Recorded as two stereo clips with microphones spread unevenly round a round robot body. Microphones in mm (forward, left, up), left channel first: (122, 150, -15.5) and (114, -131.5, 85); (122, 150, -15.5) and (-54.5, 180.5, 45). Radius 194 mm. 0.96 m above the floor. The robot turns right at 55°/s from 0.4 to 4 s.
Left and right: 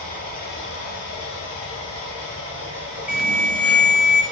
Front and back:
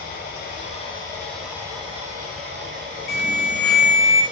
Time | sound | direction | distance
0.0 | running water | 25° left | 1.9 m
3.1 | an alarm | 35° left | 1.2 m